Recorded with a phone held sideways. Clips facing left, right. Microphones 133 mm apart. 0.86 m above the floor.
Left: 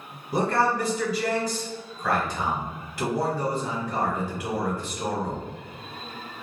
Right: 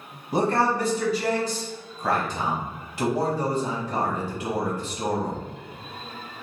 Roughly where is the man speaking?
Right.